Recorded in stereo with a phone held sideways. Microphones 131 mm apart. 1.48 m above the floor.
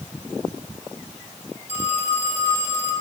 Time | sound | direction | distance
1.7 | a phone ringing | 50° left (ahead or behind) | 7 m